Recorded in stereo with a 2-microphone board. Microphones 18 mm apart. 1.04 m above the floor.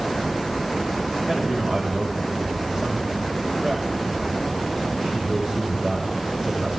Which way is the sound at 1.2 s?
50° right (ahead or behind).